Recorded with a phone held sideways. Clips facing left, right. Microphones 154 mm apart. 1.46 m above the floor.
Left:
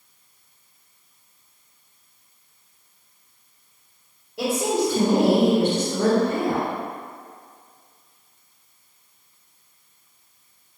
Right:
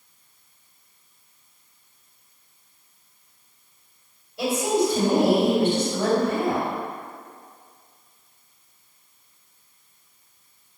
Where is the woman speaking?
75° left (ahead or behind), 1.6 m.